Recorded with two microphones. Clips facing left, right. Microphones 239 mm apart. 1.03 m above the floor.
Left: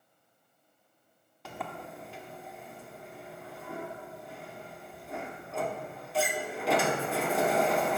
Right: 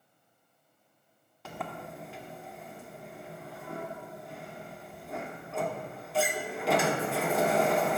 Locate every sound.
1.4 s a sliding door: centre (ahead or behind), 0.8 m